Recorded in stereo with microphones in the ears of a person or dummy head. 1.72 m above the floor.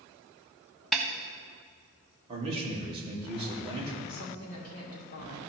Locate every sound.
0.9 s a snare drum: 5° left (ahead or behind), 0.7 m
2.3 s a man speaking: 25° right (ahead or behind), 1.9 m
4.1 s a woman speaking: 45° left (ahead or behind), 2 m